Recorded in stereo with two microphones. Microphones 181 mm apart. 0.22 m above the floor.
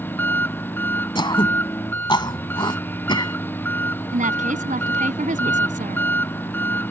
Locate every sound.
0.0 s an engine running: 10° left (ahead or behind)
1.1 s throat clearing: 25° left (ahead or behind)
4.1 s a woman speaking: 45° right (ahead or behind)